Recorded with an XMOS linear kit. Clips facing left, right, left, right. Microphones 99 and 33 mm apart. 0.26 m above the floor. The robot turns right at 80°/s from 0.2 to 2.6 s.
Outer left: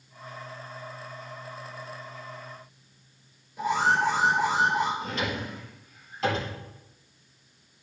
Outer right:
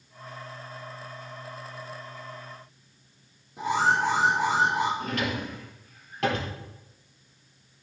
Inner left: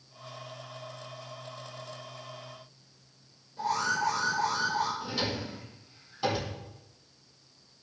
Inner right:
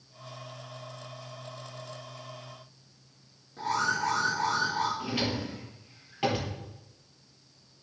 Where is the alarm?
70° right (ahead or behind), 3.5 m.